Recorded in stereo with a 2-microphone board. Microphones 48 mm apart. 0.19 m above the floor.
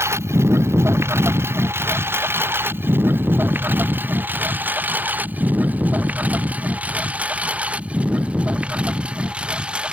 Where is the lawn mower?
70° right (ahead or behind); by 9.9 s 25° right (ahead or behind).